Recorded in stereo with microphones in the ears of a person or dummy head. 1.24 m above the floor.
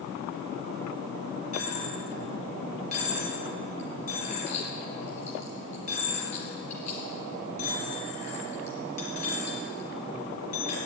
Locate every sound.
1.5 s a dropped coin: 40° left (ahead or behind), 4 m